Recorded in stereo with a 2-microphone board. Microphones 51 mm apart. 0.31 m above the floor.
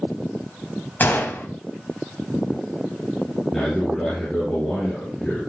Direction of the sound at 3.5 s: 15° left (ahead or behind).